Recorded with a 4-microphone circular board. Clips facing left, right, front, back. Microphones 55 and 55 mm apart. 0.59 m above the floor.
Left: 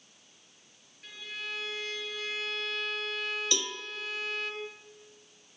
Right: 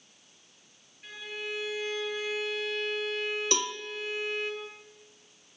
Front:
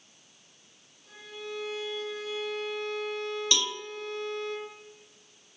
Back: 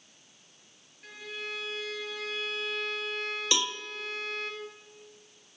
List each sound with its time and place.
1.0 s a violin: 165° right, 5.5 m
3.5 s a cowbell: 110° right, 0.8 m